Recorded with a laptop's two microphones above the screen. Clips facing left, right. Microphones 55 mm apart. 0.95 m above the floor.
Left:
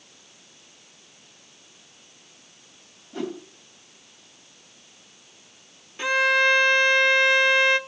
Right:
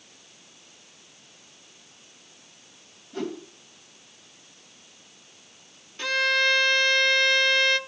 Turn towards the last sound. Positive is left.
turn(degrees=15)  # may be behind; listen again after turning